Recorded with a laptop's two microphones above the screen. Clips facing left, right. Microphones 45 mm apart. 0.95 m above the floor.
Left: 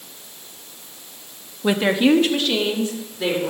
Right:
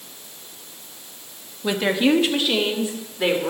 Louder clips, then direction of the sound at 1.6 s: Left 2 dB; 20° left (ahead or behind).